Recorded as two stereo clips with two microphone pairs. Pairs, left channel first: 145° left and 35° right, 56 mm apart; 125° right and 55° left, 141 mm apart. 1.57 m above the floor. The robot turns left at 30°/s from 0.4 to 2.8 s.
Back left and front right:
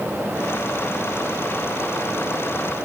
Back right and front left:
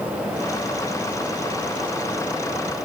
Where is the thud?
No thud in this recording.